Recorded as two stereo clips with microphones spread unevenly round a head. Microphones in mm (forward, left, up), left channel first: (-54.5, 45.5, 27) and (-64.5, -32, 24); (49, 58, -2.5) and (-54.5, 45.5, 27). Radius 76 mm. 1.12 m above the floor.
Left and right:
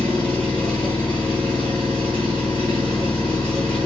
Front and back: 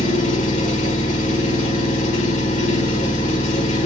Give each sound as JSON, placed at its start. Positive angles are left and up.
{"t": 0.0, "sound": "an engine running", "azimuth_deg": 5, "distance_m": 1.2}